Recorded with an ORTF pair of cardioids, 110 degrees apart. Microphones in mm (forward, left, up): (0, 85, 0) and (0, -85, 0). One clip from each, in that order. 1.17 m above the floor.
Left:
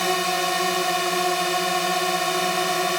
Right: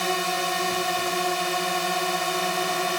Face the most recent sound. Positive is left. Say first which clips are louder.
# left 3 dB
turn(degrees=20)